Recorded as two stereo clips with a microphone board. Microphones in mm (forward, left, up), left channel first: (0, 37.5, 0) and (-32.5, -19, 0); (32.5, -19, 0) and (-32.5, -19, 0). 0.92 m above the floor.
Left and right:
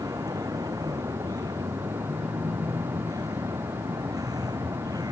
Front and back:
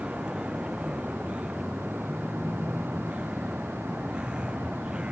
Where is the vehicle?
105° right.